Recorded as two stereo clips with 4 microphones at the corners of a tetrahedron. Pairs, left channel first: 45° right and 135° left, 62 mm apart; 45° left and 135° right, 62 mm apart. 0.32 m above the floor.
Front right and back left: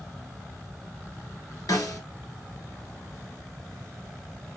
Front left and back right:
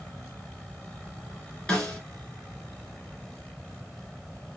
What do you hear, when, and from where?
1.7 s a snare drum: 30° right, 1.7 m